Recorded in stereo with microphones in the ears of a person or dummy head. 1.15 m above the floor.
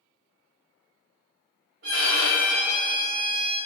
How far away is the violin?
About 1.3 m.